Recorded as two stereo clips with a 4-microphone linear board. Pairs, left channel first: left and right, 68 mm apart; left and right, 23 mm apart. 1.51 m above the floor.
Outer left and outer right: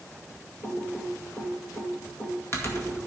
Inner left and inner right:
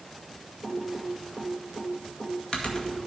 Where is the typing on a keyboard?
40° left (ahead or behind), 2 m.